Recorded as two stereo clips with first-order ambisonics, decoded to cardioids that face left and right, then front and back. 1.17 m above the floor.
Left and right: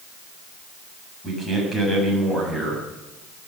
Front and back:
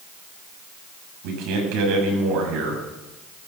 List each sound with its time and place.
1.2 s a man speaking: 175° left, 8 m